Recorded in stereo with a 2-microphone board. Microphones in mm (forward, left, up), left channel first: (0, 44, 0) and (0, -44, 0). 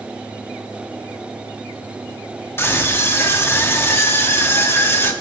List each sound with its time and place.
2.6 s a scream: 25° left (ahead or behind), 1.3 m